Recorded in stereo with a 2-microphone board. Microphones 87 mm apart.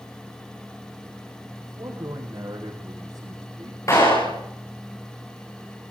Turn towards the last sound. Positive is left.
turn(degrees=35)  # may be behind; listen again after turning